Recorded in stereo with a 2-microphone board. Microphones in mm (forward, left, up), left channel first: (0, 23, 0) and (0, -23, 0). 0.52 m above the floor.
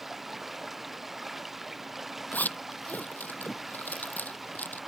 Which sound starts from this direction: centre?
Running water, at 0.0 s.